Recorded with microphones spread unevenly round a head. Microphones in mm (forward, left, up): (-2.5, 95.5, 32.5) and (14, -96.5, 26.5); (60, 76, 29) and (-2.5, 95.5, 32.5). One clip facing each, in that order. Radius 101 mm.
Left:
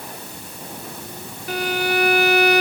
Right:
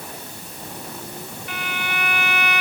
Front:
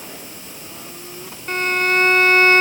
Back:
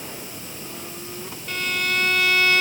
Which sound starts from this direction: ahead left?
A violin, at 1.5 s.